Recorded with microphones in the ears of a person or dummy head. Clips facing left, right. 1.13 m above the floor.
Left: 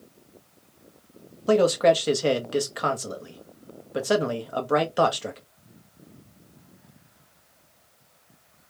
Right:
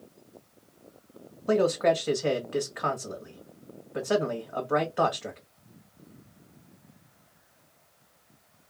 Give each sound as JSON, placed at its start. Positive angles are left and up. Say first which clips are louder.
{"t": 1.5, "sound": "a man speaking", "louder": "left 4 dB", "side_deg": 50, "distance_m": 1.1}